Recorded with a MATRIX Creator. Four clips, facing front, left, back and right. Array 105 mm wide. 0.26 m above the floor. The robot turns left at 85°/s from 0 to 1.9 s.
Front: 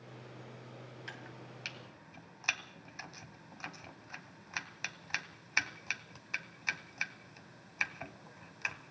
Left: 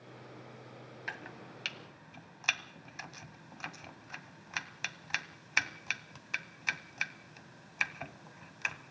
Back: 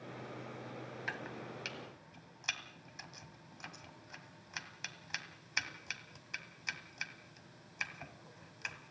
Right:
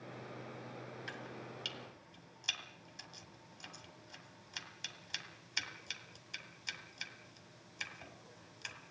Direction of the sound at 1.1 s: 135° left.